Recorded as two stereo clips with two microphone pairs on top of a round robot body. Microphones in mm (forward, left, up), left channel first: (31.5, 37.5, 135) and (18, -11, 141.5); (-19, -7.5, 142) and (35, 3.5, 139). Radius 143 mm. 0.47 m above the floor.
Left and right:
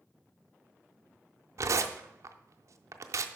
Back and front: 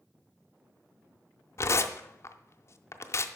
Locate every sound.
1.6 s tearing paper: 130° right, 0.5 m